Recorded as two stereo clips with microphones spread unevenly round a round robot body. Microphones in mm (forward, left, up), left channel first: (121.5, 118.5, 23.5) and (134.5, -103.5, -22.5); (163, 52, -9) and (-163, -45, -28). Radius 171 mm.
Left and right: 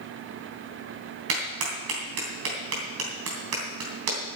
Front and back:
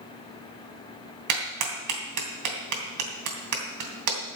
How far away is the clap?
About 2.5 m.